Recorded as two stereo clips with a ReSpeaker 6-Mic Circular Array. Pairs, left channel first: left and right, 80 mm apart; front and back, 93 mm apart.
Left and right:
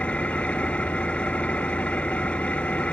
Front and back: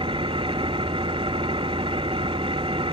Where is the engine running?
165° left, 0.7 m.